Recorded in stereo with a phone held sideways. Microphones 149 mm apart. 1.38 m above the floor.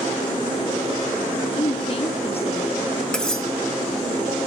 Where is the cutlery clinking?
5° left (ahead or behind), 1.5 m.